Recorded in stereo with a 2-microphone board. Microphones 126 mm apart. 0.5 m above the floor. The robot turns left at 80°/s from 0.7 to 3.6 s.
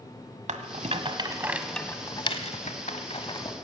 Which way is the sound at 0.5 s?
80° right.